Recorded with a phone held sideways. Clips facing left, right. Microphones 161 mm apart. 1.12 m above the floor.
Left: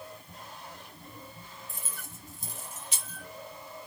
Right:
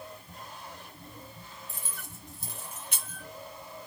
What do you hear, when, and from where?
1.7 s keys jangling: 70° right (ahead or behind), 1.7 m; by 3.2 s 50° right (ahead or behind), 0.8 m